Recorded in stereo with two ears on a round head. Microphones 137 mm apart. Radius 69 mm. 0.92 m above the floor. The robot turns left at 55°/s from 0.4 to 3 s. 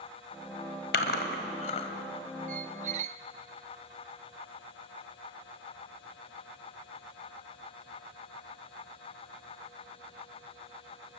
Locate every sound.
0.9 s chewing: 80° left, 2 m; by 1.9 s 40° left (ahead or behind), 2 m
2.5 s a squeak: 55° right (ahead or behind), 0.7 m; by 3.2 s 50° right (ahead or behind), 0.7 m